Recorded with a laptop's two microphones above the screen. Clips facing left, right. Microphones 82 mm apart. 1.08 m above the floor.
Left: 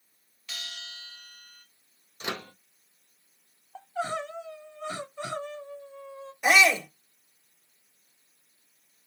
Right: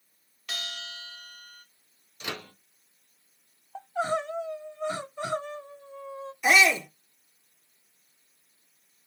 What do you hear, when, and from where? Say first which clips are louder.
0.5 s a bell: right 4 dB; 65° right (ahead or behind), 0.9 m
2.2 s a microwave: left 2 dB; 30° left (ahead or behind), 0.8 m
3.8 s crying: right 3 dB; 15° right (ahead or behind), 0.9 m
6.4 s a shout: even; 50° left (ahead or behind), 1.8 m